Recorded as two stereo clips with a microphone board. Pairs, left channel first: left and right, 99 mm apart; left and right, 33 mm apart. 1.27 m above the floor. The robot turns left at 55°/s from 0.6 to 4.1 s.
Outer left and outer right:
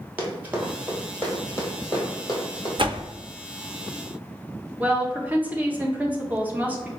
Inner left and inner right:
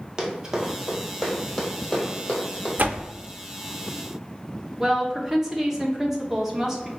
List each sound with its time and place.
0.2 s running footsteps: 20° right (ahead or behind), 1.3 m; by 2.7 s 40° left (ahead or behind), 2 m
2.8 s a door slam: 60° right (ahead or behind), 0.6 m; by 3.1 s 55° right (ahead or behind), 0.6 m
4.8 s a woman speaking: 15° right (ahead or behind), 0.7 m